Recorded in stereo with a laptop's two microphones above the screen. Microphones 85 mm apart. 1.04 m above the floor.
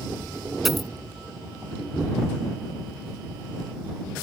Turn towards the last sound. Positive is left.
turn(degrees=0)  # may be behind; listen again after turning